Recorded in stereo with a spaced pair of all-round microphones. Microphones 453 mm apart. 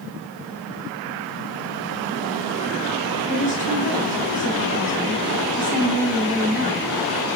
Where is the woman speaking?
15° right (ahead or behind), 6.5 m.